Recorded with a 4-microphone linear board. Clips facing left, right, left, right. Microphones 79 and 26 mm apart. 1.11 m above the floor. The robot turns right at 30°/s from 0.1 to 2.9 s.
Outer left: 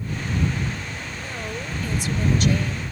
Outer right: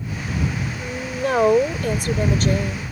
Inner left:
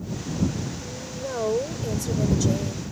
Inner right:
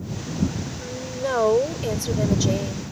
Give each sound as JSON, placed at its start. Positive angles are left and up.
{"t": 0.8, "sound": "a woman speaking", "azimuth_deg": -90}